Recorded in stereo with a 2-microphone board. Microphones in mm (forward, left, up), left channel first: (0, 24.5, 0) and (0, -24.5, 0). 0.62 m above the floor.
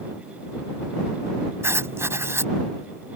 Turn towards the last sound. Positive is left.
turn(degrees=-55)  # may be behind; listen again after turning